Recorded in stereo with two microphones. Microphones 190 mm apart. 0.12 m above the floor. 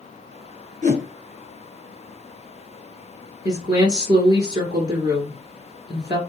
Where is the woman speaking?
20° right (ahead or behind), 1.7 m.